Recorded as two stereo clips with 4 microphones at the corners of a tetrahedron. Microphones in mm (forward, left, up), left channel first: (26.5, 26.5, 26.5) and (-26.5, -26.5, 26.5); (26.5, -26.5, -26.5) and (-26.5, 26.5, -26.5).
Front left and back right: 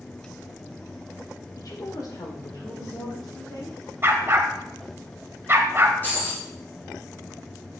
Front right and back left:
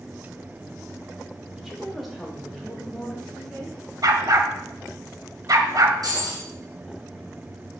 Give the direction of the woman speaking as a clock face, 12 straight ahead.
10 o'clock.